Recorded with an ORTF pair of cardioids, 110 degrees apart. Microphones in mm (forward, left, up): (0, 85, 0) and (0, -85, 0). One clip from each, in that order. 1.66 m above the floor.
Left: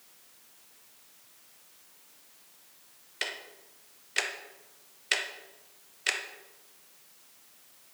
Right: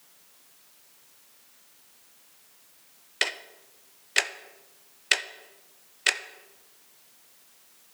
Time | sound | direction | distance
3.2 | ticking | 35° right | 0.6 m